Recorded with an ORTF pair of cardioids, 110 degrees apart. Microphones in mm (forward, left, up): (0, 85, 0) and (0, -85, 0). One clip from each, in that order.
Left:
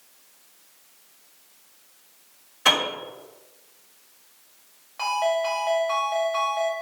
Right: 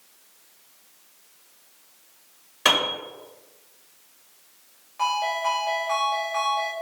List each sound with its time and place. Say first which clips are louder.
2.6 s a piano: even; 40° right, 1.5 m
5.0 s a ringtone: left 1 dB; 20° left, 1.3 m